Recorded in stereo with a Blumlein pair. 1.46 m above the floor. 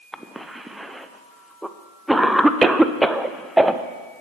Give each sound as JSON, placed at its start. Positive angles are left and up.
{"t": 0.1, "sound": "a cough", "azimuth_deg": -5, "distance_m": 0.5}